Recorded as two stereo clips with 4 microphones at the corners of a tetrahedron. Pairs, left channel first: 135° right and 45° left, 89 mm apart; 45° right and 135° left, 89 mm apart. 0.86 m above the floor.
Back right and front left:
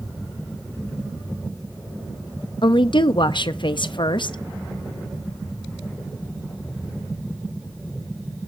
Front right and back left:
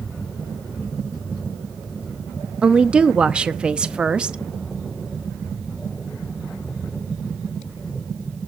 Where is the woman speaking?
150° right, 0.8 m.